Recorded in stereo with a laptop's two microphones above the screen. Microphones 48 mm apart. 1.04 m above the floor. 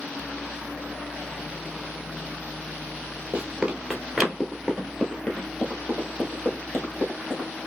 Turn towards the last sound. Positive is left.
turn(degrees=45)  # may be behind; listen again after turning